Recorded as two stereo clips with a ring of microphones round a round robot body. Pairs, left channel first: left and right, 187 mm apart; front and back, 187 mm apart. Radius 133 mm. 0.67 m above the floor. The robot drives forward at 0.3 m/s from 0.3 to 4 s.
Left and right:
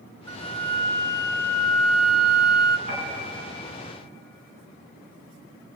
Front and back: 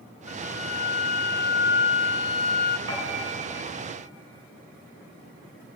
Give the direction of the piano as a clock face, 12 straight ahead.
5 o'clock.